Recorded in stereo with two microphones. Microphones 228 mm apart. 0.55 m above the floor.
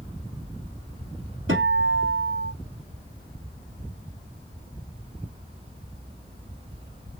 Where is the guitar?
65° right (ahead or behind), 2 m.